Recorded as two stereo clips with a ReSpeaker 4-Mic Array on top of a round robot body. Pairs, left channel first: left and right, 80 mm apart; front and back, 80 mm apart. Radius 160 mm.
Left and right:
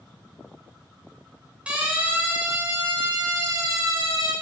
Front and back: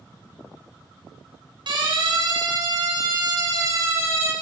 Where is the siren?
165° right, 5.5 m; by 4.3 s 130° right, 5.5 m.